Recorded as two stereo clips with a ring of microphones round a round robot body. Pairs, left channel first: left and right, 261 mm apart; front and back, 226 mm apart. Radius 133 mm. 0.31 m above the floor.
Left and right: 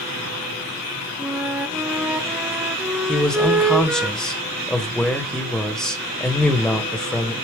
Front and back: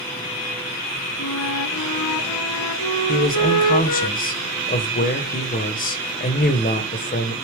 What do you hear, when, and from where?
1.2 s a flute: 5° right, 0.8 m
3.1 s a man speaking: 5° left, 1.7 m